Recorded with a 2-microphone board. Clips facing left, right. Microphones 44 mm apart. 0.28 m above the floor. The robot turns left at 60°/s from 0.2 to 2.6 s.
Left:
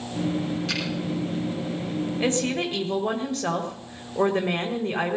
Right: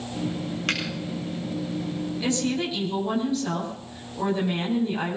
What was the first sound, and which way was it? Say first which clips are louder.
A finger snap: right 2 dB; 65° right (ahead or behind).